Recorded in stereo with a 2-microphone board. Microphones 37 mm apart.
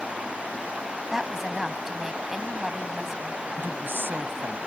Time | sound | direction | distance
1.1 | a woman speaking | 15° right (ahead or behind) | ?
3.6 | a woman speaking | 85° right | ?